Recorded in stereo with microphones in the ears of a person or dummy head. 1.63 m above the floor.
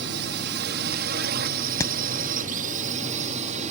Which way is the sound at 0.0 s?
60° right (ahead or behind).